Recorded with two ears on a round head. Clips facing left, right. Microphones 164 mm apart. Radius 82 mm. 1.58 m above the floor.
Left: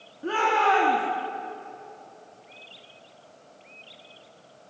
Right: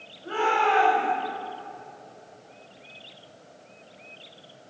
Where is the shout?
80° left, 2.5 m.